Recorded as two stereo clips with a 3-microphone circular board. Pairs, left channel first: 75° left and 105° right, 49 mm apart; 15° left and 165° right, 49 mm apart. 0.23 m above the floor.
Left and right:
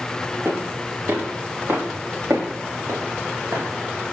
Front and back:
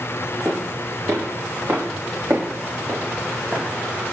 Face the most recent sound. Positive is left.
turn(degrees=-125)